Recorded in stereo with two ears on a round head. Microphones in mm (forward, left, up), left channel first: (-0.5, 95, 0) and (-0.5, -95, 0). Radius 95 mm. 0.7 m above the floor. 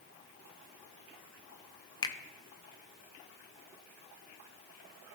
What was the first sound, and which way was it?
A finger snap, 20° left (ahead or behind).